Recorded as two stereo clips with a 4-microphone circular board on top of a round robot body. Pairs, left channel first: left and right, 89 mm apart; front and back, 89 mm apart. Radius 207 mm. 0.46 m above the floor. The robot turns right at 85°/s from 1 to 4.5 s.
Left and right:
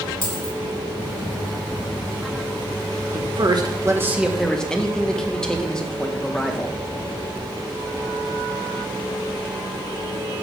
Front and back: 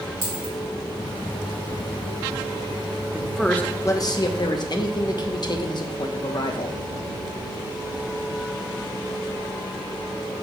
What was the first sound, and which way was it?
A dropped coin, 125° left.